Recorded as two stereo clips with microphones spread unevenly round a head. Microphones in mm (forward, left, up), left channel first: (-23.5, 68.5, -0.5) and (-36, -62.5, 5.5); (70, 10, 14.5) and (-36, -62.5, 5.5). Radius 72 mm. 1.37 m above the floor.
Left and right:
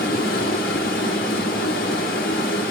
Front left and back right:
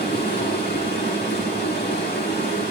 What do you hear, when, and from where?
0.0 s running water: 85° left, 6 m